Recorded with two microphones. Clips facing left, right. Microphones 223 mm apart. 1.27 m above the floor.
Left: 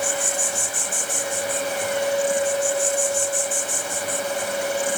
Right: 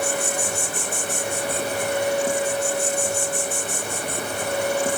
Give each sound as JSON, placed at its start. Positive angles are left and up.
{"t": 0.0, "sound": "an insect", "side_deg": -65, "distance_m": 2.0}